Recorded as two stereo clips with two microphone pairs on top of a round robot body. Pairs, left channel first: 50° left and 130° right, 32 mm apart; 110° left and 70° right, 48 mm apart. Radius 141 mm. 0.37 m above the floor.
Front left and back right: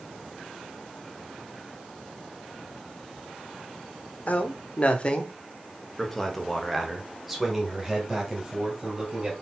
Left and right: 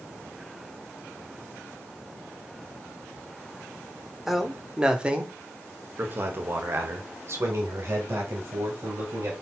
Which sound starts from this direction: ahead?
A man speaking, at 4.3 s.